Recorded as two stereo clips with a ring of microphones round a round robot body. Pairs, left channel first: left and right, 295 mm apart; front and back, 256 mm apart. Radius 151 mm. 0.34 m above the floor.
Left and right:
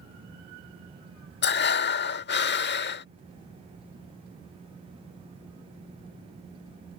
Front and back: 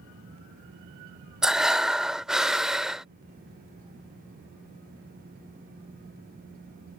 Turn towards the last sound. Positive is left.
turn(degrees=95)